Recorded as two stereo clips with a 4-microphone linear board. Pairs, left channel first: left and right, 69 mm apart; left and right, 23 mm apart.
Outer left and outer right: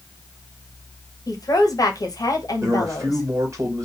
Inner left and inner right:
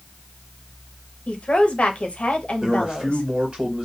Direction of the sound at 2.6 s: 45° right (ahead or behind).